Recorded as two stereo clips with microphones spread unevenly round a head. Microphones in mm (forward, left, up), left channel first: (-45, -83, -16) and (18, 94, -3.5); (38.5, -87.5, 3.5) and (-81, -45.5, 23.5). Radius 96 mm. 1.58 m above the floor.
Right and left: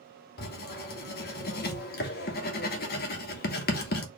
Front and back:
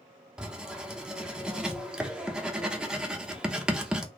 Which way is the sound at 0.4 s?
125° right.